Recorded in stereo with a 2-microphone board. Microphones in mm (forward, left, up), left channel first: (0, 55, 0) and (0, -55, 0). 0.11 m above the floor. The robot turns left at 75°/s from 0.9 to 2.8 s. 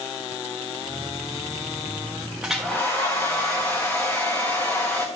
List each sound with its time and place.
2.4 s a hair dryer: 10° right (ahead or behind), 1.9 m; by 5.1 s 15° left (ahead or behind), 1.9 m